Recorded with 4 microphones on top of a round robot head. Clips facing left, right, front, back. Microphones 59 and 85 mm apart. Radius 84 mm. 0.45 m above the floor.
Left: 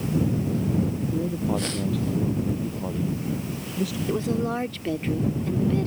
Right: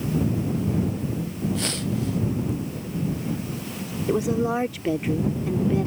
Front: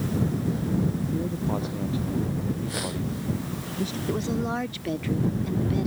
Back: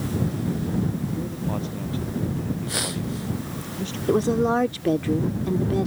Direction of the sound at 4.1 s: 160° right.